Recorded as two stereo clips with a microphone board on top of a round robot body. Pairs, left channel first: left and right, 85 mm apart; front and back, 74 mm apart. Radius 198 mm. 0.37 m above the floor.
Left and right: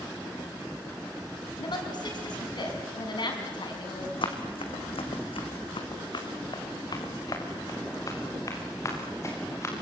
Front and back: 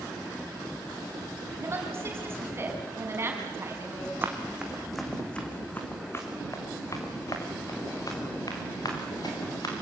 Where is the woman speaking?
125° left, 6 m.